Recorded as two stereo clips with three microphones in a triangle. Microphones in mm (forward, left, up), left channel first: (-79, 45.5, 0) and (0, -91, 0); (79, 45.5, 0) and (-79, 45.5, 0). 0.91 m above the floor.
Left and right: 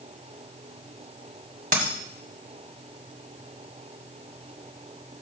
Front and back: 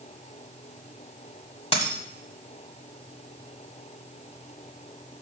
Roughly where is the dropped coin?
Ahead right.